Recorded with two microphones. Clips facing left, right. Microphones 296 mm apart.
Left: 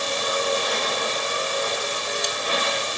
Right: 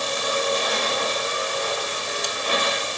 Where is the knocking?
No knocking in this recording.